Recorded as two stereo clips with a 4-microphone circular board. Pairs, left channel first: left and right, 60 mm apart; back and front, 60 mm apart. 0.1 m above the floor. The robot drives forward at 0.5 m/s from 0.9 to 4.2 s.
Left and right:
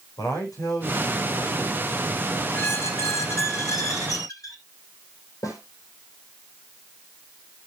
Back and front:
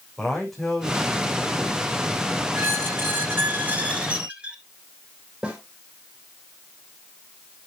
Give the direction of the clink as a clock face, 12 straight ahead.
I don't hear a clink.